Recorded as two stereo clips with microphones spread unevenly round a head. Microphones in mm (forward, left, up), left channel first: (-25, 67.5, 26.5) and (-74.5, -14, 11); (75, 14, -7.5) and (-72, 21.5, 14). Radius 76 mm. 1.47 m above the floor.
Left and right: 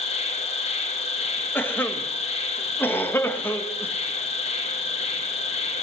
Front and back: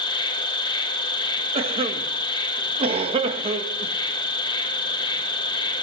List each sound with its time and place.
0.0 s an insect: 55° left, 2 m
1.6 s a cough: 125° left, 2.0 m